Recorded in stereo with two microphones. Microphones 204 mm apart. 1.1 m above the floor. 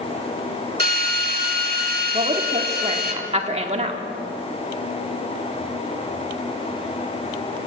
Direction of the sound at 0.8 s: 45° right (ahead or behind).